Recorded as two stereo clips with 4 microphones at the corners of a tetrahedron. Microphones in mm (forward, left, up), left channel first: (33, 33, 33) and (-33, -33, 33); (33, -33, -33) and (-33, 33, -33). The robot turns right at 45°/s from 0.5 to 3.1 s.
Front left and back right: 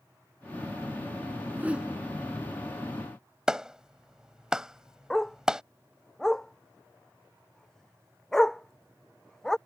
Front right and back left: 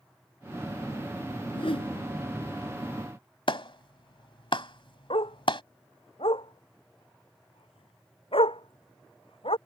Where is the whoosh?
70° right; by 2.0 s 45° right.